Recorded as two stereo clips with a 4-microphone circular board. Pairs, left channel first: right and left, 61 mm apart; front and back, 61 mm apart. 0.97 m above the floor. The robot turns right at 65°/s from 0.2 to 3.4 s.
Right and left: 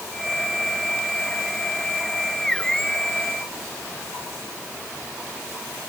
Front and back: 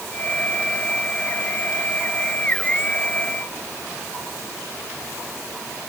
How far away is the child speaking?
No child speaking in this recording.